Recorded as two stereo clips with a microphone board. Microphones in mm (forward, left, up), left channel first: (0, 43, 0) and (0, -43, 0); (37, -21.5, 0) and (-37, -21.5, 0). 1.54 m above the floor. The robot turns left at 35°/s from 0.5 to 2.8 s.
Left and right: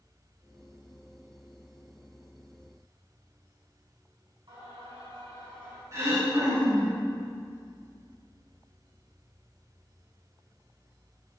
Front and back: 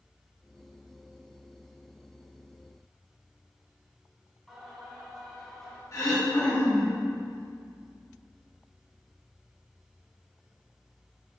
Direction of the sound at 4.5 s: 85° right.